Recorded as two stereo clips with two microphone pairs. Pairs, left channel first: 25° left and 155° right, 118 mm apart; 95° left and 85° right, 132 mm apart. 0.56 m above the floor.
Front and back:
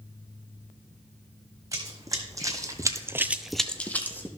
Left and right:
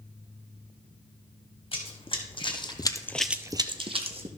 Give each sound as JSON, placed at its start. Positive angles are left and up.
{"t": 1.7, "sound": "running footsteps", "azimuth_deg": 140, "distance_m": 2.0}